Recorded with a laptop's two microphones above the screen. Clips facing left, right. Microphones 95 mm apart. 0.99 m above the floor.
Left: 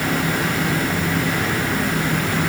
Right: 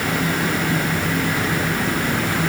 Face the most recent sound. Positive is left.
No sound to turn to.